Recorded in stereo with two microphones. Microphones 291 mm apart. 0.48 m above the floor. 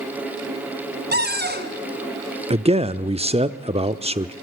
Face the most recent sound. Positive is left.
turn(degrees=-20)  # may be behind; listen again after turning